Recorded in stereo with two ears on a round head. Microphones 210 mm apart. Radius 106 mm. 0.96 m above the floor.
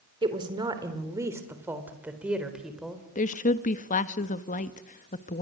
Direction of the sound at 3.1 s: 35° left (ahead or behind).